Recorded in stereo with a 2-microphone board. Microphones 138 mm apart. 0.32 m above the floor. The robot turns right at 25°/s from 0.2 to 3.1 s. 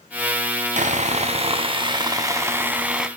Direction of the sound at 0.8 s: 65° right.